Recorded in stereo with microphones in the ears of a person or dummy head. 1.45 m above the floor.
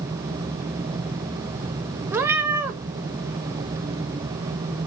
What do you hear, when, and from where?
2.1 s a cat meowing: 10° right (ahead or behind), 0.8 m